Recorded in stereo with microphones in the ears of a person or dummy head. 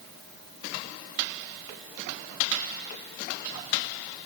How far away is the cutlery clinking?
No cutlery clinking in this recording.